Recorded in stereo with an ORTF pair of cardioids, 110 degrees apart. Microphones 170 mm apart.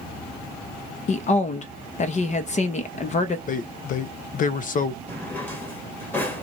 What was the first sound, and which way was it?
A woman speaking, 45° left.